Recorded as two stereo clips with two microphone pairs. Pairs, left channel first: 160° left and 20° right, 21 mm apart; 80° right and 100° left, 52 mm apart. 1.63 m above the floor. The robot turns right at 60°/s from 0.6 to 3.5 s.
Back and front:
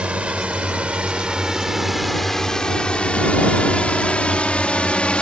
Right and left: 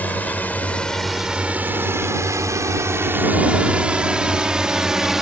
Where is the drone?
25° right; by 5.2 s straight behind.